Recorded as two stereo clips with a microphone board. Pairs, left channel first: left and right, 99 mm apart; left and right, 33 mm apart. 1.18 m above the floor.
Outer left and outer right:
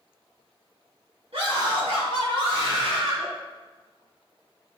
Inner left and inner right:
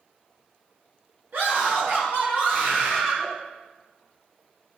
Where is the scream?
80° right, 2.5 m; by 3.3 s 85° right, 4 m.